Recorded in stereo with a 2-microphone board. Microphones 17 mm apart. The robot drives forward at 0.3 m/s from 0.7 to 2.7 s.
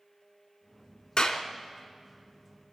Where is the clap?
45° left (ahead or behind), 1.9 m; by 1.4 s 40° left (ahead or behind), 2.0 m.